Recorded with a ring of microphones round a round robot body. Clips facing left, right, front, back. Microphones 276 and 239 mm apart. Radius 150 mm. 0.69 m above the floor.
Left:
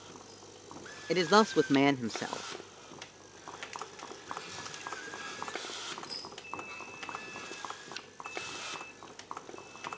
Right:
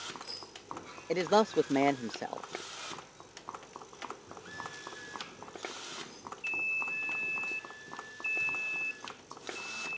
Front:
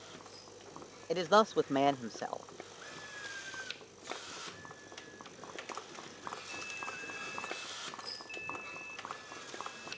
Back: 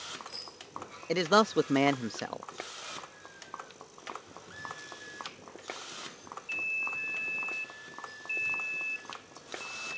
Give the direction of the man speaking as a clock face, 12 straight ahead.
7 o'clock.